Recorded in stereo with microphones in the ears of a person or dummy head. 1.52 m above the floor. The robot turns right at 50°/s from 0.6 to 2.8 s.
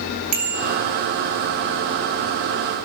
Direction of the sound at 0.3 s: 40° right (ahead or behind).